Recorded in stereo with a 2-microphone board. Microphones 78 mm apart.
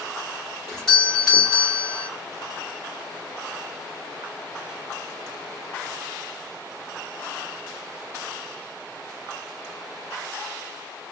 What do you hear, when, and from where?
0.7 s a doorbell: 5° left (ahead or behind), 1.3 m